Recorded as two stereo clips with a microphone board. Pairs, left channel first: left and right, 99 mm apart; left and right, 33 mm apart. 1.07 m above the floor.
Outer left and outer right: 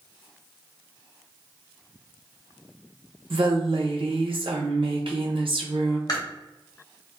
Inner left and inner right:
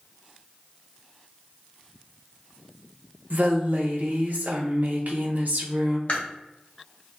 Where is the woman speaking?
65° right (ahead or behind), 0.7 m.